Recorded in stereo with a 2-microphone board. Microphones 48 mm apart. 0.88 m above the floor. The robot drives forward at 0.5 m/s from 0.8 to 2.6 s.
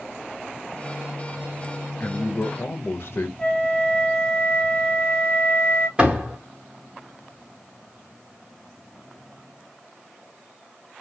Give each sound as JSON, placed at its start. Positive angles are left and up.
{"t": 2.0, "sound": "a man speaking", "side_deg": 40, "distance_m": 0.7}
{"t": 3.4, "sound": "a flute", "side_deg": 15, "distance_m": 1.9}
{"t": 6.0, "sound": "a door slam", "side_deg": -20, "distance_m": 1.3}